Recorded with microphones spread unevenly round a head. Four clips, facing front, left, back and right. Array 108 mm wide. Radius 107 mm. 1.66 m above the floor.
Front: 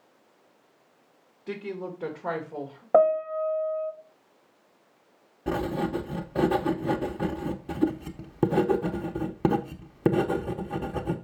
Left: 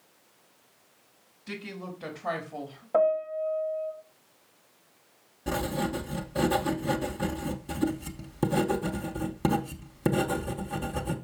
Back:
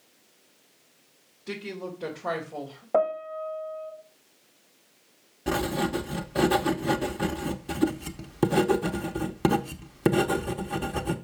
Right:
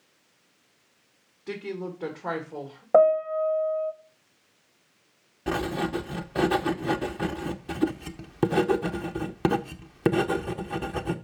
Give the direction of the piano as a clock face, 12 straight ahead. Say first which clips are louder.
Right 6 dB, front 5 dB; 2 o'clock.